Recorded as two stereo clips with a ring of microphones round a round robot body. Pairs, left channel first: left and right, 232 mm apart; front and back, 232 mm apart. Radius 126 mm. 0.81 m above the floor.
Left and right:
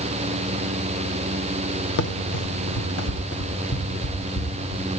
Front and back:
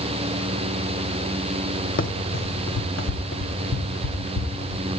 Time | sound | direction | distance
2.0 | running footsteps | 50° left | 1.3 m